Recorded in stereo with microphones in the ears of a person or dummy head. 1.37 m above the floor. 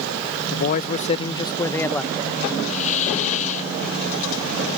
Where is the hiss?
35° left (ahead or behind).